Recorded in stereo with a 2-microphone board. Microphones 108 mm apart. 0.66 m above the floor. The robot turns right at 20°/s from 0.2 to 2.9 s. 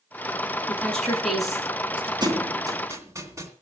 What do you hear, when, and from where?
0.7 s a woman speaking: 15° left (ahead or behind), 9 m; by 2.1 s 15° right (ahead or behind), 9 m
2.2 s a thud: 45° right (ahead or behind), 2.5 m; by 3.5 s 30° right (ahead or behind), 2.5 m